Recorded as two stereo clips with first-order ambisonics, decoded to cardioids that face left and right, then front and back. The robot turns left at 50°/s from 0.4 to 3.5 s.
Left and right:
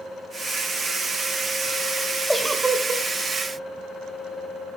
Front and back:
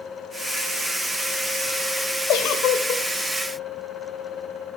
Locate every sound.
2.3 s a giggle: 5° left, 1.0 m; by 3.0 s 30° right, 1.0 m